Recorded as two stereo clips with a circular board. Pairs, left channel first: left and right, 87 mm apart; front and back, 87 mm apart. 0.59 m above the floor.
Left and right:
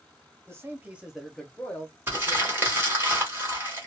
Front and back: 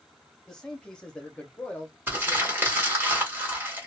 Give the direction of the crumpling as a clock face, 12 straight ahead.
4 o'clock.